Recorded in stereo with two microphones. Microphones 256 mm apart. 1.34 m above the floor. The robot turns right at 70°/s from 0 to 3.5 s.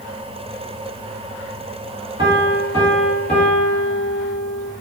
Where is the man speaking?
No man speaking in this recording.